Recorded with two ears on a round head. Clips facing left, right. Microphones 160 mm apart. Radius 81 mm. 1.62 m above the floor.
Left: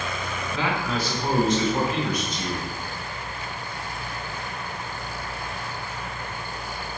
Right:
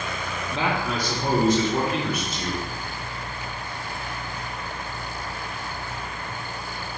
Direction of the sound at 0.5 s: 20° right (ahead or behind).